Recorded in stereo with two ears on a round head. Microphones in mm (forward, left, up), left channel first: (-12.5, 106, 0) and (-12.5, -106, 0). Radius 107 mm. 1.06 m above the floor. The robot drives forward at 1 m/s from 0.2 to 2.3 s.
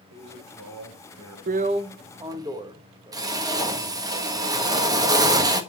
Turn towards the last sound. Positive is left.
turn(degrees=-15)  # may be behind; listen again after turning